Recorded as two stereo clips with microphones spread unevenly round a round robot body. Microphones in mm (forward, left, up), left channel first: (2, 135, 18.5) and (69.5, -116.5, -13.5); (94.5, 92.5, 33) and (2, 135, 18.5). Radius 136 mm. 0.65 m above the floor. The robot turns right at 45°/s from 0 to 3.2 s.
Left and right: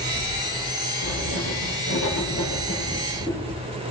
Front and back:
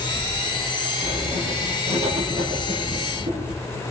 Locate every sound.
1.0 s writing: 110° left, 5 m; by 3.6 s 155° right, 5 m